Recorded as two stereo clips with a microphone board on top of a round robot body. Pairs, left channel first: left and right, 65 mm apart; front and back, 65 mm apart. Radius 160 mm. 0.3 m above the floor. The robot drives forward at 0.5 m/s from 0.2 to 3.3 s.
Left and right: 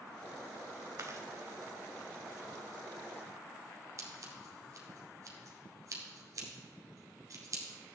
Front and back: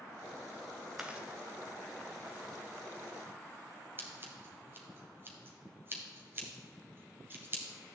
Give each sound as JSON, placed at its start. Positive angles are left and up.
{"t": 1.0, "sound": "chewing", "azimuth_deg": -110, "distance_m": 1.7}
{"t": 4.0, "sound": "scissors", "azimuth_deg": -125, "distance_m": 2.0}